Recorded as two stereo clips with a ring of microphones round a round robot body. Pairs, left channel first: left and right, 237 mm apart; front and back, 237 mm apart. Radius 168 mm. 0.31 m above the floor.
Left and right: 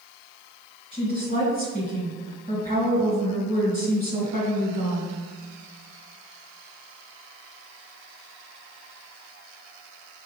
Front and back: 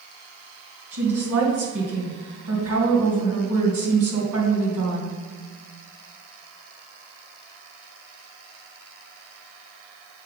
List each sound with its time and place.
0.9 s a woman speaking: 160° right, 3 m